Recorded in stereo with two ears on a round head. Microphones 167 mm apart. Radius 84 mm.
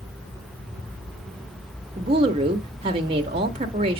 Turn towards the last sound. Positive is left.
turn(degrees=-30)  # may be behind; listen again after turning